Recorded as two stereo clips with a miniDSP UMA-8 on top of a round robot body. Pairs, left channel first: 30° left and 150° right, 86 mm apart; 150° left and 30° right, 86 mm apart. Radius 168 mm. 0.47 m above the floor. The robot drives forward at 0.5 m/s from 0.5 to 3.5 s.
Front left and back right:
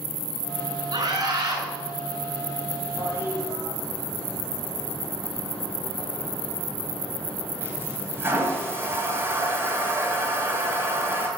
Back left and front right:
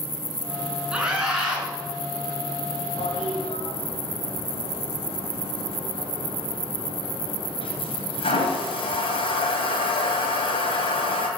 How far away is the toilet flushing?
About 1.9 m.